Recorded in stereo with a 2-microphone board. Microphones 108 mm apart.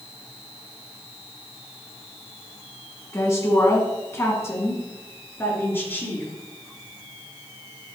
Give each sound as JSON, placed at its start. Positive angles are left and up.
{"t": 3.1, "sound": "a woman speaking", "side_deg": 30, "distance_m": 1.6}